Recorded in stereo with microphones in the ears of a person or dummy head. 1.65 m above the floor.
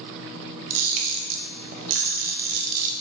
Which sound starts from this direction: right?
A camera shutter, at 0.7 s.